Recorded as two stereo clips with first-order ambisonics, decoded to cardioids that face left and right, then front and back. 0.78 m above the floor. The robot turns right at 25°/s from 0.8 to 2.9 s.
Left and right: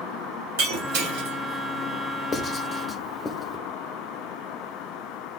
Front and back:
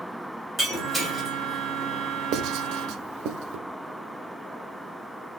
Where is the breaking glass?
105° right, 1.7 m; by 1.4 s 90° right, 1.7 m.